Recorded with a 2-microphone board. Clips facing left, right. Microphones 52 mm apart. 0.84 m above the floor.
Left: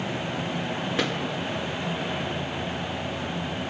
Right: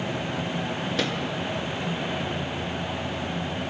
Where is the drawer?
25° left (ahead or behind), 8 m.